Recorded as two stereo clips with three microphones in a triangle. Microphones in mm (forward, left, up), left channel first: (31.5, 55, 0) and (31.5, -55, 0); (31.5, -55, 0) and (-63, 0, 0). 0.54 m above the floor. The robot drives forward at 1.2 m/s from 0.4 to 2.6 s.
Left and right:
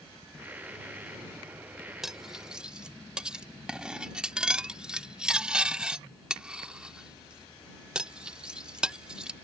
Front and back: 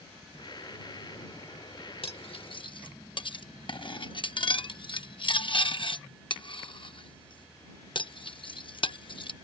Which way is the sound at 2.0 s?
5° right.